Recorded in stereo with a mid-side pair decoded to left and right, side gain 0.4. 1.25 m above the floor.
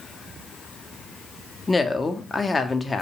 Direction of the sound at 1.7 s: 25° left.